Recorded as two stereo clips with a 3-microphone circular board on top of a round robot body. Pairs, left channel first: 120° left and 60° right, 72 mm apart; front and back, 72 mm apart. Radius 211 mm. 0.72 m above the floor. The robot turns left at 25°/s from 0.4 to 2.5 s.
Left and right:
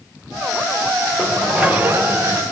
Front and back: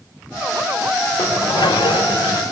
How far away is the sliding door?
About 3 m.